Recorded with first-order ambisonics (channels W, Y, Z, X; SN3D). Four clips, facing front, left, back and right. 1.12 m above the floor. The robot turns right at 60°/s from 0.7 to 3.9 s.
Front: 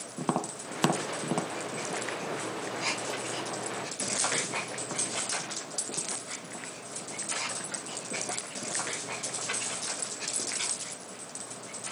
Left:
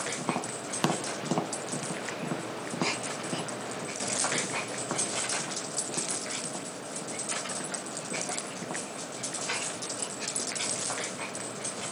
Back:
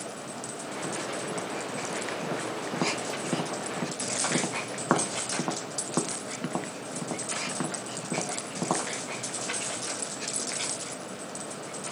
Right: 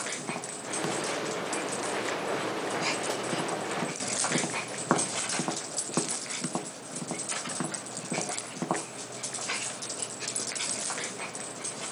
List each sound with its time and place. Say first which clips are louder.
0.2 s tapping: left 4 dB, front 5 dB; 20° left, 0.8 m; by 8.9 s 145° right, 0.8 m